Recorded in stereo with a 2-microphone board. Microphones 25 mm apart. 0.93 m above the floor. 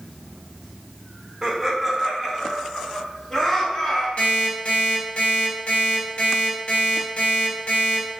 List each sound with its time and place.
1.4 s laughter: 10° right (ahead or behind), 0.6 m; by 4.1 s 25° left (ahead or behind), 1.5 m
4.2 s an alarm clock: 60° left (ahead or behind), 1.0 m